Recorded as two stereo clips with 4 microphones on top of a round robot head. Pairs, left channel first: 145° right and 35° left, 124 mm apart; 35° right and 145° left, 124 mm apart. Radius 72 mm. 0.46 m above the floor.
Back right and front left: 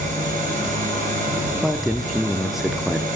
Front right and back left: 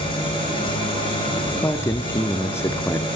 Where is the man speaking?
50° right, 0.7 m.